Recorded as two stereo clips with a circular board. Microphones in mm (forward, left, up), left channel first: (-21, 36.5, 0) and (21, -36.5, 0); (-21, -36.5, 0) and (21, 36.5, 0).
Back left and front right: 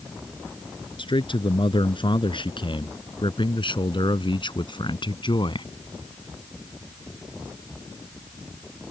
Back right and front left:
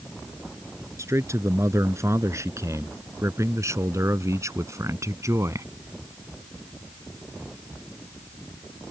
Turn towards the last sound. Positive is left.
turn(degrees=110)